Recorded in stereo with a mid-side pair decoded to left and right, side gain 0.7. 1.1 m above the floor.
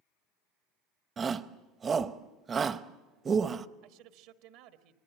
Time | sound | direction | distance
1.2 | a shout | 30° right | 0.9 m
3.8 | a man speaking | 70° right | 1.4 m